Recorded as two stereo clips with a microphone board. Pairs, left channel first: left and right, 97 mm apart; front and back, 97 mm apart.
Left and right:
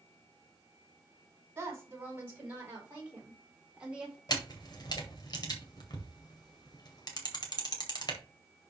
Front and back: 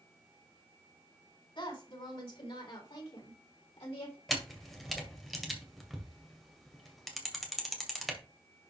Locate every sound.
1.6 s a woman speaking: 25° right, 5.5 m; by 4.2 s 10° right, 3.5 m
4.3 s a camera shutter: 90° left, 1.8 m